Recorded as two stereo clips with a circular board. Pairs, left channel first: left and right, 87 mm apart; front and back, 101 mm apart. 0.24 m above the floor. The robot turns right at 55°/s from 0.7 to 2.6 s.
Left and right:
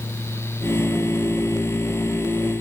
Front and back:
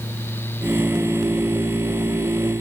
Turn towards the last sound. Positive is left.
No sound to turn to.